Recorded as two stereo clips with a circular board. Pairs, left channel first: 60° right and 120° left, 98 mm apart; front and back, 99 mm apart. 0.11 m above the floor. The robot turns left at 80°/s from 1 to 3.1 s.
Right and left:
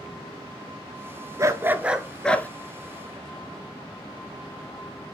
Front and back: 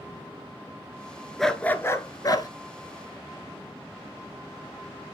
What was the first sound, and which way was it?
A dog barking, 85° left.